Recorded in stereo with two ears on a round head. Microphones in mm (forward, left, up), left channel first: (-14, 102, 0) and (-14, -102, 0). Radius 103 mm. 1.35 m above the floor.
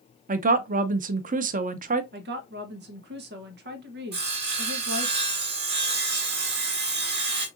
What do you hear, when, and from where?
0.3 s a woman speaking: 35° right (ahead or behind), 0.6 m
2.1 s a woman speaking: 45° right (ahead or behind), 1.0 m
4.1 s sawing: 50° right (ahead or behind), 1.9 m